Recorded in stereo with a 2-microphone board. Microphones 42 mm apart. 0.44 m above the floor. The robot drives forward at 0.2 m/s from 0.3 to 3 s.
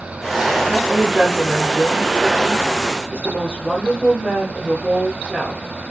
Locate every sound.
0.7 s a woman speaking: 20° right (ahead or behind), 0.9 m